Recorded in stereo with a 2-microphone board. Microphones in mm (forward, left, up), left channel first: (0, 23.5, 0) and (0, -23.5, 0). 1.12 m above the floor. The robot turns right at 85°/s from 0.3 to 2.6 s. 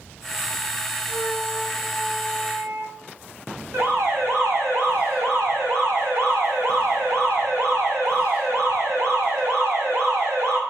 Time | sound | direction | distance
1.1 | a flute | 85° left | 2 m
3.7 | an alarm | 90° right | 5.5 m